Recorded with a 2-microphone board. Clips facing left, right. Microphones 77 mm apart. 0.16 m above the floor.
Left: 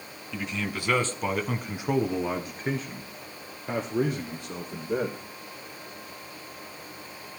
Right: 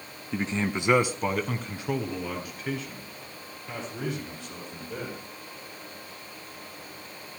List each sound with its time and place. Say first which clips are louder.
0.3 s a man speaking: right 4 dB; 40° right (ahead or behind), 1.3 m; by 5.2 s 50° left (ahead or behind), 4 m